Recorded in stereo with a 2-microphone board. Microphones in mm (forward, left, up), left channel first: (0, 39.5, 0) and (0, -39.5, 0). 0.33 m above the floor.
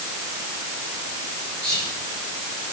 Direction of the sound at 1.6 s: 10° left (ahead or behind).